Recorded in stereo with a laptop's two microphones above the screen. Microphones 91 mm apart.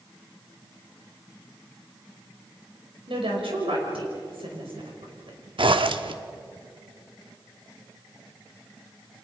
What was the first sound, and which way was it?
A woman speaking, 75° right (ahead or behind).